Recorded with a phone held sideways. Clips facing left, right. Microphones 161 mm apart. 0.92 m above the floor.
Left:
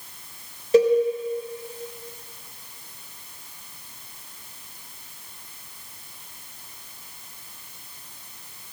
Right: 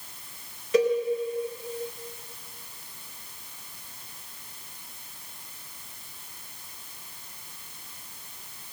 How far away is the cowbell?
About 5 m.